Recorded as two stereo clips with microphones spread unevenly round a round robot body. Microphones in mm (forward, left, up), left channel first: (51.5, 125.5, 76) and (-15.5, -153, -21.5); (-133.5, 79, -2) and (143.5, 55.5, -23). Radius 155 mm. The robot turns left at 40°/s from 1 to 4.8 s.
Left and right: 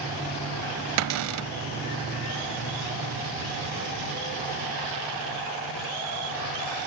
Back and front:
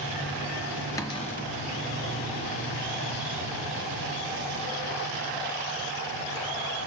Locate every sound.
1.0 s a cupboard door: 105° right, 0.5 m; by 1.5 s 125° right, 0.5 m